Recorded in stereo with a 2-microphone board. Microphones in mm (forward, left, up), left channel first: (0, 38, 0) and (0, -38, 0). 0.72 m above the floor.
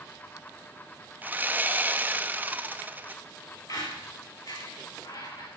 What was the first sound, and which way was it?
Sawing, 25° right (ahead or behind).